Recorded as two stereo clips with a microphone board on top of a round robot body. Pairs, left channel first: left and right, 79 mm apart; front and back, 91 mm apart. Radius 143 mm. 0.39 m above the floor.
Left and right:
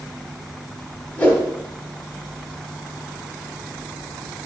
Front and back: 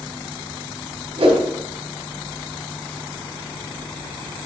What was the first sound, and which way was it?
A whoosh, 165° left.